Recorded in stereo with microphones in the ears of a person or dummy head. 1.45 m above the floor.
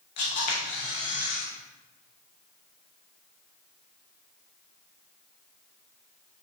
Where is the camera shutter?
45° left (ahead or behind), 0.9 m.